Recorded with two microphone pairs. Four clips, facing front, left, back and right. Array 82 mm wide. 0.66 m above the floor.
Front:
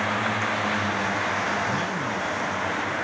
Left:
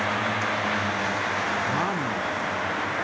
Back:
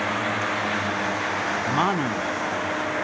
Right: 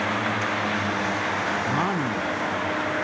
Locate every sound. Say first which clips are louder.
1.6 s a man speaking: right 1 dB, back 4 dB; straight behind